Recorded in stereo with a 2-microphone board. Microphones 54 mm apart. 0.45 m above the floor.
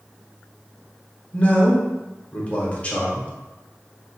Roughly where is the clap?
I don't hear a clap.